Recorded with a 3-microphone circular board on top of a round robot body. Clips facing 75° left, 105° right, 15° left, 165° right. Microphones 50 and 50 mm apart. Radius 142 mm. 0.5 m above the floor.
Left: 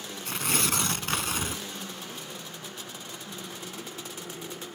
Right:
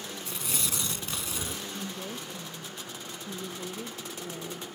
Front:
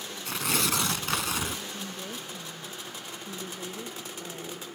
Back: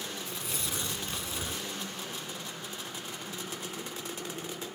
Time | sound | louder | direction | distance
0.2 | tearing paper | left 9 dB, front 9 dB | 35° left | ?
1.7 | a woman speaking | right 2 dB, front 1 dB | 45° right | ?